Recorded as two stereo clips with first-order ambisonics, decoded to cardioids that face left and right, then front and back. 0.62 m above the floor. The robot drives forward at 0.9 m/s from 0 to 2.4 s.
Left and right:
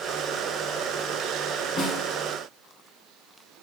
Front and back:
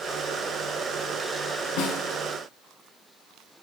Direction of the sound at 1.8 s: 30° left.